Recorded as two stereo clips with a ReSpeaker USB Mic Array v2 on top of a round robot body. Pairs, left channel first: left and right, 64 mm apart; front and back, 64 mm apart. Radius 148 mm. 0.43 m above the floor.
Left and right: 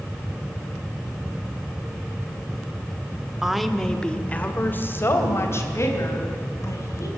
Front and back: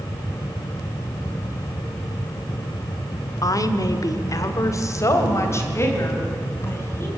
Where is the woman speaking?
10° right, 1.7 m; by 7.1 s 55° left, 5 m.